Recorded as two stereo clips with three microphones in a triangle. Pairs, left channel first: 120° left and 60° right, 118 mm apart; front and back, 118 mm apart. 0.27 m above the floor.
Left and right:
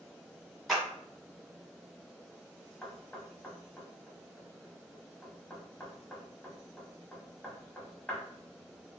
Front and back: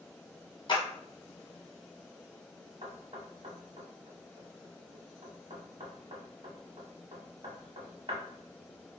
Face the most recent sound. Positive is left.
turn(degrees=-165)